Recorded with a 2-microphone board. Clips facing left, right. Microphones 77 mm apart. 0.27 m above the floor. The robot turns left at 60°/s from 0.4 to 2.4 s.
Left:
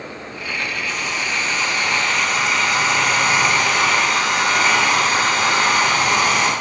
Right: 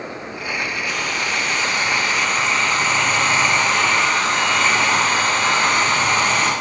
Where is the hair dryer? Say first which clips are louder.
Right 1 dB; 95° right, 4 m; by 6.5 s 170° left, 4 m.